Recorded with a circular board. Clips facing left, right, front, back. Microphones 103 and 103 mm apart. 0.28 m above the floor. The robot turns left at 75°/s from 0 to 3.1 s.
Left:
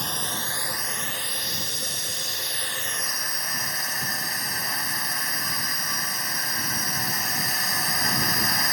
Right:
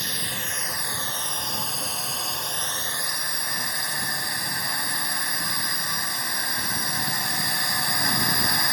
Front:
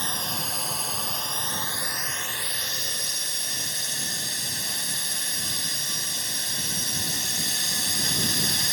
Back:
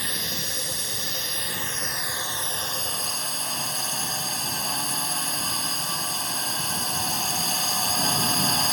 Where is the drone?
55° left; by 8.7 s 175° right.